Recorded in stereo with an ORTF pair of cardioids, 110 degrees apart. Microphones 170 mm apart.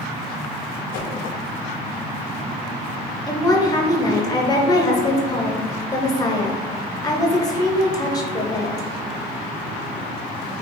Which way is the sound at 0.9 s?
60° left.